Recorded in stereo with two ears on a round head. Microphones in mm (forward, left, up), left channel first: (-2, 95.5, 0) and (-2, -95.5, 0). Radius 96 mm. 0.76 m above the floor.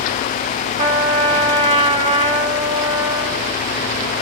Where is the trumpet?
25° right (ahead or behind), 0.8 m.